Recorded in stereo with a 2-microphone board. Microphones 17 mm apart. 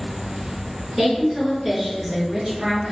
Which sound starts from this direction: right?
A woman speaking, at 1.0 s.